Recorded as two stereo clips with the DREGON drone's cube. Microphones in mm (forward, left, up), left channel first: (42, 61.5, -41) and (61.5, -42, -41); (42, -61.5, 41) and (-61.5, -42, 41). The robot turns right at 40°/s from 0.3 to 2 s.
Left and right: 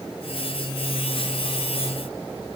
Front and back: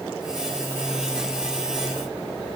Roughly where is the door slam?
I don't hear a door slam.